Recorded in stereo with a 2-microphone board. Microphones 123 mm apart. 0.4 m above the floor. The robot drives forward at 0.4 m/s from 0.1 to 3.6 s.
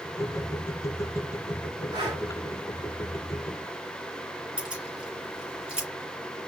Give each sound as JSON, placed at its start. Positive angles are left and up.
{"t": 1.9, "sound": "breathing", "side_deg": -35, "distance_m": 3.0}
{"t": 4.6, "sound": "keys jangling", "side_deg": -5, "distance_m": 3.5}